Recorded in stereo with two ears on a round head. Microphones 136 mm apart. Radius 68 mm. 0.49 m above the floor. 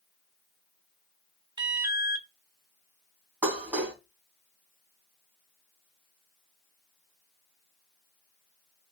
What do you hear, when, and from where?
1.6 s an alarm: 30° right (ahead or behind), 1.2 m
3.4 s dishes clattering: 10° right (ahead or behind), 3 m